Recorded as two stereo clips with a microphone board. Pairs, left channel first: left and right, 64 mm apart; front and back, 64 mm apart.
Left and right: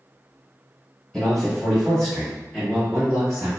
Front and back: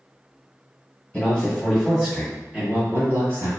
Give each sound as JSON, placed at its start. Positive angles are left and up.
{"t": 1.1, "sound": "a man speaking", "azimuth_deg": 30, "distance_m": 1.5}